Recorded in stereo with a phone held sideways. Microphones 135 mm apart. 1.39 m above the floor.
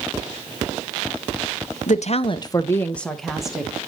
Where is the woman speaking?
70° left (ahead or behind), 0.6 m; by 3.7 s 5° right (ahead or behind), 1.4 m.